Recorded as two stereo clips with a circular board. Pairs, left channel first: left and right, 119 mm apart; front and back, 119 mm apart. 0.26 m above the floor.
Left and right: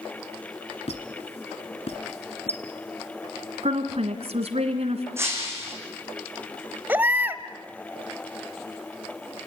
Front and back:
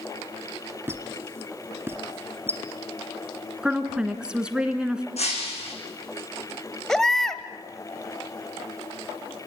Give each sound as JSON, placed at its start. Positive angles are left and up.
{"t": 0.9, "sound": "a squeak", "azimuth_deg": 110, "distance_m": 1.7}
{"t": 3.6, "sound": "a woman speaking", "azimuth_deg": -100, "distance_m": 2.5}
{"t": 5.2, "sound": "breaking glass", "azimuth_deg": -20, "distance_m": 6.0}
{"t": 6.9, "sound": "a baby crying", "azimuth_deg": -75, "distance_m": 1.1}